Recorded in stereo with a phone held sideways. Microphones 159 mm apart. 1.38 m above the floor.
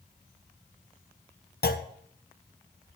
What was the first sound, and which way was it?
A clunk, 80° left.